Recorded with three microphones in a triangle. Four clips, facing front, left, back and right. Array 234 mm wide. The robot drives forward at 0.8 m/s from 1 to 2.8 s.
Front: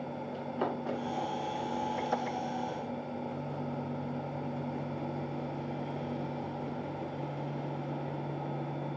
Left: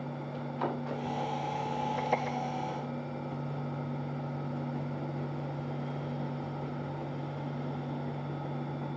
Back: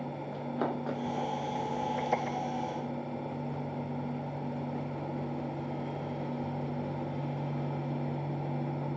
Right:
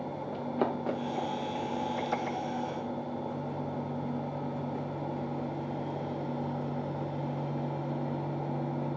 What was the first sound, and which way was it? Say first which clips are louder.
Running footsteps: right 4 dB, back 1 dB; 95° right.